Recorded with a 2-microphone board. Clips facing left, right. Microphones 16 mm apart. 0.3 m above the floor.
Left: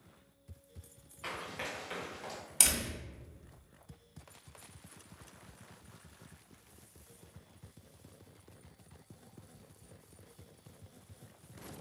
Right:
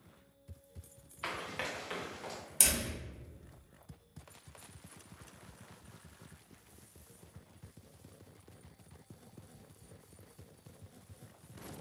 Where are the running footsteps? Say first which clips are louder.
Right 2 dB; 50° right (ahead or behind), 1.4 m; by 2.4 s 5° left (ahead or behind), 1.7 m.